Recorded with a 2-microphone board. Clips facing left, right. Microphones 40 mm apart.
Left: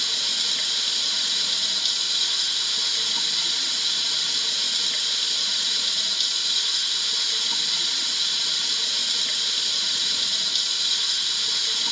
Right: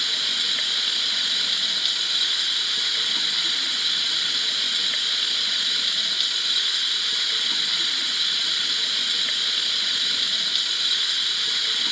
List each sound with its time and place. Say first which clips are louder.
0.0 s running water: right 2 dB; 25° right (ahead or behind), 1.3 m